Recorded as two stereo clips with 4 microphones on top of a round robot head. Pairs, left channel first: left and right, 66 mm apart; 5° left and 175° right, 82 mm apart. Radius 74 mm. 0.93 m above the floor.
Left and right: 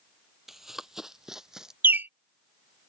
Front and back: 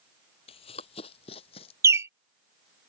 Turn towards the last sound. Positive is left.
turn(degrees=-135)